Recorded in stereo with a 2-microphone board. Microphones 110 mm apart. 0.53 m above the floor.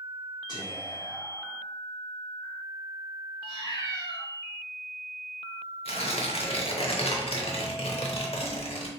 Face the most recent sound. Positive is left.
turn(degrees=65)  # may be behind; listen again after turning